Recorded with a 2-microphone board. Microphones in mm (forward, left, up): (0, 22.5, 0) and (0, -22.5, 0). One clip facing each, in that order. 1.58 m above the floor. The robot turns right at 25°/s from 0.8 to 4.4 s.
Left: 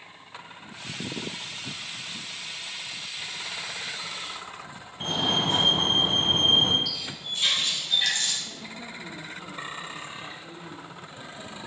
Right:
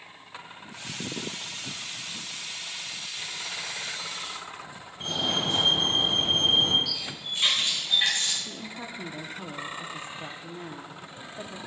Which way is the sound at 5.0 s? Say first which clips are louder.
Left 2 dB; 40° left (ahead or behind).